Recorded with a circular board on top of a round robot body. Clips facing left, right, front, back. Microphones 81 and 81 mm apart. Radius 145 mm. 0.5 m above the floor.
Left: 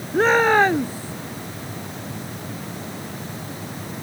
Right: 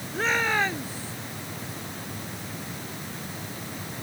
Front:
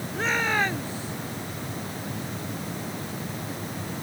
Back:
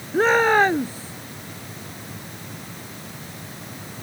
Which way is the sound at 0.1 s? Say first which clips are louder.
Left 10 dB, back 9 dB; 135° left.